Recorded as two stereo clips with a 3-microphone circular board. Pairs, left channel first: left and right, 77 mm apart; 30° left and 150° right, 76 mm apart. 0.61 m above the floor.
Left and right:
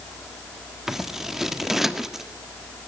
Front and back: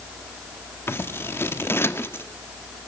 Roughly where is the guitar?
No guitar in this recording.